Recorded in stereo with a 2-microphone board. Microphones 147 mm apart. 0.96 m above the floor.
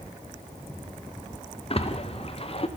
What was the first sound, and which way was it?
A splash, 40° left (ahead or behind).